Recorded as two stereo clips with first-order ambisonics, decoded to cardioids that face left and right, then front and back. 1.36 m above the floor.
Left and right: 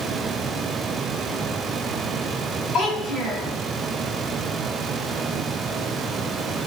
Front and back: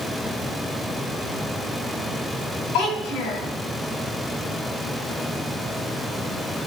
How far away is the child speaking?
About 4.5 m.